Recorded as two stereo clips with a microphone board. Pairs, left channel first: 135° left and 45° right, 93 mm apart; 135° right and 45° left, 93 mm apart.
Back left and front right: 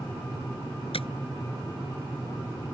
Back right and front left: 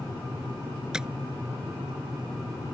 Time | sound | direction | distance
0.9 | tapping | 130° left | ?